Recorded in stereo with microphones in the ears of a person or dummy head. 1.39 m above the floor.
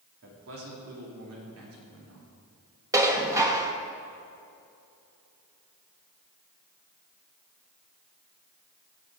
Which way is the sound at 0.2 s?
60° right (ahead or behind).